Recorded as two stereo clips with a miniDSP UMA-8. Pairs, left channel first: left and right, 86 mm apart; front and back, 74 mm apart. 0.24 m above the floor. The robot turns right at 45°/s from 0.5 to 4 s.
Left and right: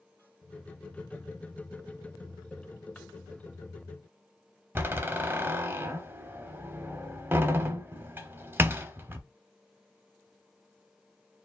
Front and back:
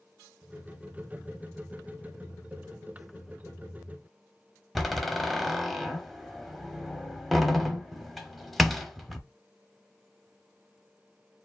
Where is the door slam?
90° right, 0.8 m.